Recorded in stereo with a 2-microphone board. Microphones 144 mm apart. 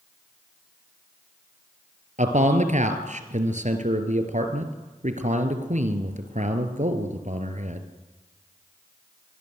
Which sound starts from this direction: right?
A man speaking, at 2.2 s.